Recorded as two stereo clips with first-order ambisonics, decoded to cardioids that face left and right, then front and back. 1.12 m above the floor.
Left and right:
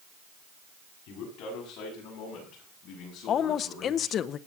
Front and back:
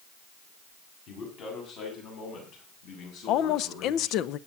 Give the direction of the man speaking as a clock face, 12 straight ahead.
10 o'clock.